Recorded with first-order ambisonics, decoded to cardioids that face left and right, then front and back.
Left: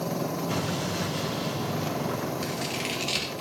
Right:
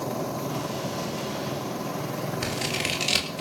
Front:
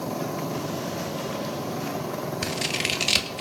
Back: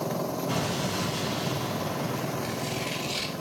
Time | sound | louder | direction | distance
0.5 | an explosion | left 1 dB, back 1 dB | 150° left | 9 m
2.4 | scissors | right 3 dB, front 5 dB | 20° right | 3 m